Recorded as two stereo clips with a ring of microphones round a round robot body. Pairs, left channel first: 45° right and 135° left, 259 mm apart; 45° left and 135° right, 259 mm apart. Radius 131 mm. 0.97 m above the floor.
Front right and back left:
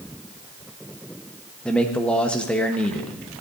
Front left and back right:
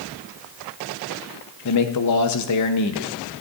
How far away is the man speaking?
About 0.9 m.